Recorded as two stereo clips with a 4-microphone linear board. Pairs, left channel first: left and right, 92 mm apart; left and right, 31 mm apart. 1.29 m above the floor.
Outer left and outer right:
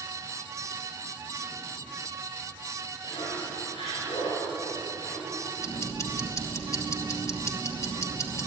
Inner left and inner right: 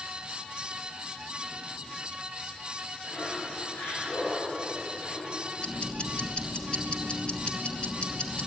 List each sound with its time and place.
3.0 s laughter: 75° left (ahead or behind), 7.5 m
5.6 s ticking: 35° left (ahead or behind), 2.5 m